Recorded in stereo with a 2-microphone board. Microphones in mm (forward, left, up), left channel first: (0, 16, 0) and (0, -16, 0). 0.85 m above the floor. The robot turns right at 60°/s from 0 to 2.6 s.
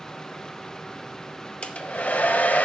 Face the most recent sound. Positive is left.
turn(degrees=105)